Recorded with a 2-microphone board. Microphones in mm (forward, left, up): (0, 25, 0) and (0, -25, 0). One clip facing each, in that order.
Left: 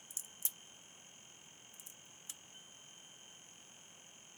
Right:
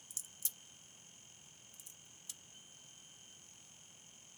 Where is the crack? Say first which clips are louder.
Left 1 dB; 30° left (ahead or behind), 0.8 m.